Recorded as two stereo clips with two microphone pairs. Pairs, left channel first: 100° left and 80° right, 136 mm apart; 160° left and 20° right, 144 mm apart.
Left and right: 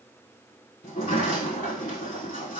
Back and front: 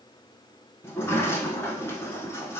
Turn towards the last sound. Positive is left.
turn(degrees=90)